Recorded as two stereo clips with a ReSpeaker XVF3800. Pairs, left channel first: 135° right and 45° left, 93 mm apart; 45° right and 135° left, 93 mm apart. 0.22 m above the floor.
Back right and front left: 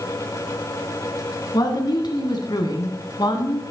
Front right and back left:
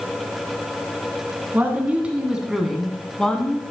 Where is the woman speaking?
160° right, 2 m; by 3.6 s 120° right, 2 m.